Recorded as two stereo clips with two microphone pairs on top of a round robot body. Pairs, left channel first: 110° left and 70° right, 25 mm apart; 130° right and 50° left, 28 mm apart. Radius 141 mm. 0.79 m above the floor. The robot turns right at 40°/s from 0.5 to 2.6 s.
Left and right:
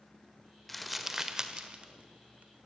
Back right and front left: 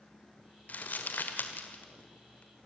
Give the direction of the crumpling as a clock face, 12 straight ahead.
5 o'clock.